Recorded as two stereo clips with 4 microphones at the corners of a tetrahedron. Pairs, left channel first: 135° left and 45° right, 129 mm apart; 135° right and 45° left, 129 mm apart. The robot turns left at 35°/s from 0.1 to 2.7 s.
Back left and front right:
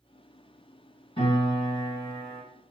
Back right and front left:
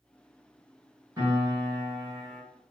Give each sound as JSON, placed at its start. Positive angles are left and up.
{"t": 1.2, "sound": "a piano", "azimuth_deg": 105, "distance_m": 1.8}